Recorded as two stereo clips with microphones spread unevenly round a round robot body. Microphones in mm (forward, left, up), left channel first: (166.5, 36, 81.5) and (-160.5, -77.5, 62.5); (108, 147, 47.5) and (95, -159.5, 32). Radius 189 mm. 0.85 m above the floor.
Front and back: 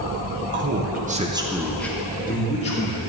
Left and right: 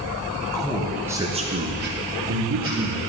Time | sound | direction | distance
0.5 | a man speaking | 165° left | 1.2 m